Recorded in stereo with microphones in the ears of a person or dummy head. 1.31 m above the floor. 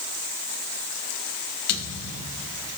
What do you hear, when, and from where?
1.7 s a thud: 55° left (ahead or behind), 3.5 m